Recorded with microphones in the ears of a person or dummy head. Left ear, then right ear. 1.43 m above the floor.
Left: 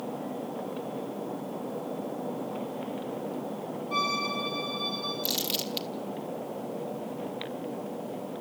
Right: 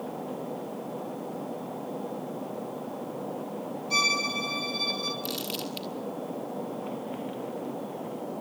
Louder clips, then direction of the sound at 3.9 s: Right 4 dB; 85° right.